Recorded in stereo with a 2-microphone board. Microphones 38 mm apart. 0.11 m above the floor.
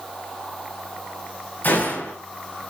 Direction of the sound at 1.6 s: 55° left (ahead or behind).